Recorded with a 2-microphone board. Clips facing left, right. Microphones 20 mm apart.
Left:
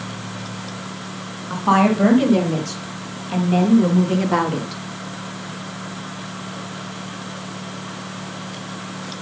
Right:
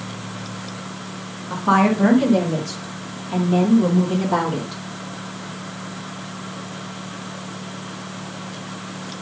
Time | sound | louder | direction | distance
1.5 | a woman speaking | left 1 dB | 40° left (ahead or behind) | 4 m